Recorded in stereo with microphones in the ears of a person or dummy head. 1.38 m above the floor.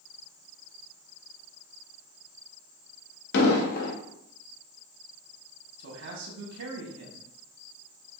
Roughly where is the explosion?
Left.